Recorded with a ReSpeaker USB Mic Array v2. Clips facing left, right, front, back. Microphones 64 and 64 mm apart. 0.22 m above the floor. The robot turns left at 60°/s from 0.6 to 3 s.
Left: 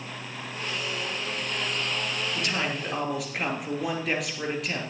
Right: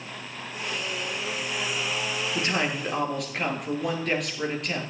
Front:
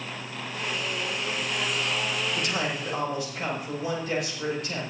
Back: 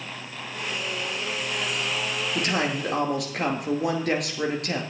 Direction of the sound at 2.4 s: 145° right.